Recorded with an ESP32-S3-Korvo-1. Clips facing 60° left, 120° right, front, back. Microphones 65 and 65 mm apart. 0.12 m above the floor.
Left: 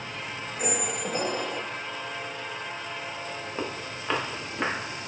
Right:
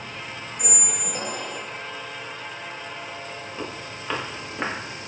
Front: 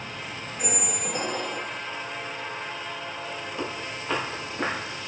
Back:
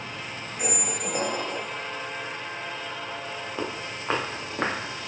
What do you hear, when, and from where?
0.6 s a squeak: 110° left, 0.5 m
3.6 s footsteps: 120° left, 1.3 m; by 4.8 s 165° left, 1.9 m